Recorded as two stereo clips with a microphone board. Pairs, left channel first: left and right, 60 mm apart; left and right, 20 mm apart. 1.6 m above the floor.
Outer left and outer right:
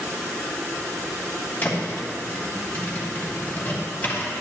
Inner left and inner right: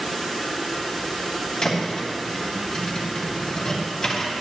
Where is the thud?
30° left (ahead or behind), 1.9 m.